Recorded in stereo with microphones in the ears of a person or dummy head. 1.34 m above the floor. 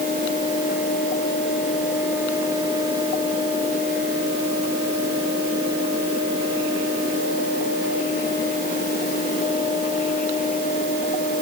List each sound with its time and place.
Only background noise.